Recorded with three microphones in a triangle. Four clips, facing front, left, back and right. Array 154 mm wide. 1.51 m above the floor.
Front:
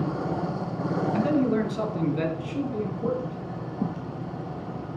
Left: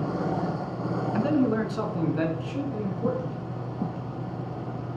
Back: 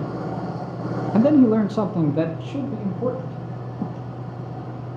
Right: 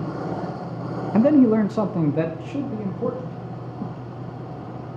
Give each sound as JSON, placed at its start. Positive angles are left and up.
{"t": 1.1, "sound": "a man speaking", "azimuth_deg": -135, "distance_m": 0.5}